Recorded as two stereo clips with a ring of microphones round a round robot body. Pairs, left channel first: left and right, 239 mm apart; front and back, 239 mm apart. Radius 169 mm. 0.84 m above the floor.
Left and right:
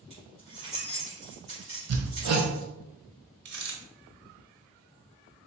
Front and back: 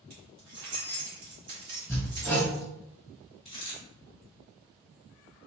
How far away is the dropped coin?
About 2 m.